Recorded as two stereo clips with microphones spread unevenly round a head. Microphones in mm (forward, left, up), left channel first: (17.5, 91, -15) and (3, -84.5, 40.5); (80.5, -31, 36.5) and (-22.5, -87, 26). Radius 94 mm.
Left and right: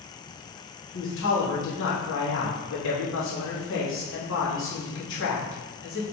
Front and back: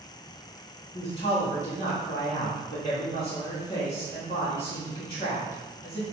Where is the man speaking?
85° left, 3 m.